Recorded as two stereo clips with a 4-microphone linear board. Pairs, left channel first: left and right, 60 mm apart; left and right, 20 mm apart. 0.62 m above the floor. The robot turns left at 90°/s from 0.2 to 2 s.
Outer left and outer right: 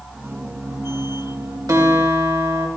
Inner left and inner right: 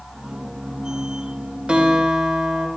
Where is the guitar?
75° right (ahead or behind), 3 m; by 2.7 s 65° right (ahead or behind), 3 m.